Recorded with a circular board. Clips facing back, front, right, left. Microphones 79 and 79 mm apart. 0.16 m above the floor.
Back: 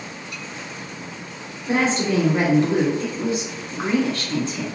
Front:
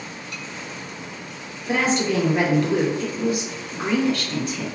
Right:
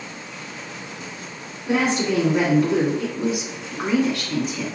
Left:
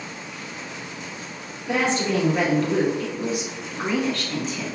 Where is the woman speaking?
150° right, 1.6 m.